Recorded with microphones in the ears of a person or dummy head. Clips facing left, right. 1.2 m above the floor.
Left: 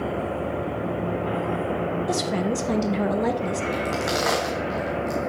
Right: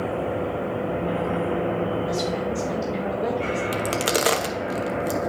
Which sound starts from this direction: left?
A woman speaking, at 2.1 s.